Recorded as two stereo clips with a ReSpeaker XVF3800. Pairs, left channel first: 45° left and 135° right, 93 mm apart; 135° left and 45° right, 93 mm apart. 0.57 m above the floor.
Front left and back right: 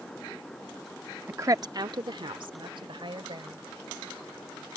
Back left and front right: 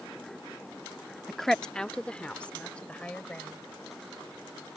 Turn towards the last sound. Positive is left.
turn(degrees=-150)